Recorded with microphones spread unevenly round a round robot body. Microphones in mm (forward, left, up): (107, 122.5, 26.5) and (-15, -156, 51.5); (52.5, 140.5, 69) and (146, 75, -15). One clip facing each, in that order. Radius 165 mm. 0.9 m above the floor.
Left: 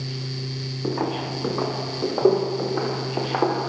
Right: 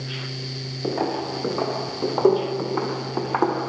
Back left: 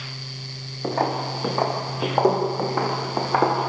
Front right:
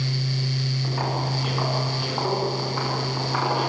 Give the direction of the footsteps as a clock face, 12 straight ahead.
7 o'clock.